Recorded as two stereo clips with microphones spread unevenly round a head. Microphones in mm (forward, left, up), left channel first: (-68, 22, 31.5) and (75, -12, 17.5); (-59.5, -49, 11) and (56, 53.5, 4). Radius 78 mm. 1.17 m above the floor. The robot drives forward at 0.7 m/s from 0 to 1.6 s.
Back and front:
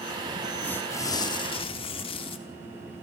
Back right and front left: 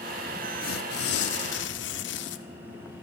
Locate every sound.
0.6 s tearing paper: 115° right, 1.1 m; by 2.4 s 140° right, 1.5 m